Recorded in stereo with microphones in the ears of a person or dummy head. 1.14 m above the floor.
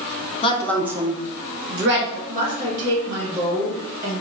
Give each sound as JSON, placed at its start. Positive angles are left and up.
{"t": 0.4, "sound": "a woman speaking", "side_deg": 25, "distance_m": 0.6}
{"t": 2.3, "sound": "a woman speaking", "side_deg": -45, "distance_m": 2.0}